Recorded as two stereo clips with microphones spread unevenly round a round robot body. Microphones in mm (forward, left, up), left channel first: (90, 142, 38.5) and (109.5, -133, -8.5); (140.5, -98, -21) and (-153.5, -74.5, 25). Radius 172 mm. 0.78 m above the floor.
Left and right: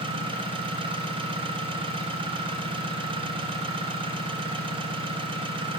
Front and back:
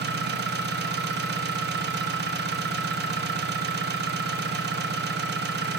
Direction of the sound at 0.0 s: 135° right.